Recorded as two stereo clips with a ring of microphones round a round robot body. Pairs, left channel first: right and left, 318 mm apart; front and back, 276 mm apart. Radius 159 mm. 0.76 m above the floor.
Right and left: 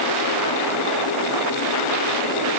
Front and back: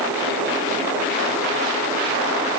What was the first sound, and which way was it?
Only background noise.